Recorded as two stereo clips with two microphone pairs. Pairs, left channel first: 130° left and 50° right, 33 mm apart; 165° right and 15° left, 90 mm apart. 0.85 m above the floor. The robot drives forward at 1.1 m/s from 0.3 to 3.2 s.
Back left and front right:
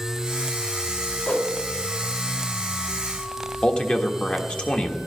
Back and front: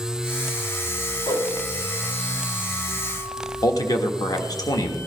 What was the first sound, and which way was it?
A whoosh, 170° left.